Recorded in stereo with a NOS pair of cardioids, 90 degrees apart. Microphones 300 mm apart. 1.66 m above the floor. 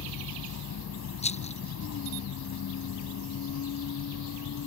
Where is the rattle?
20° left.